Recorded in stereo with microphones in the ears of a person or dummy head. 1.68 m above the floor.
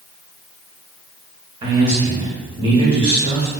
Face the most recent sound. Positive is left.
turn(degrees=-25)  # may be behind; listen again after turning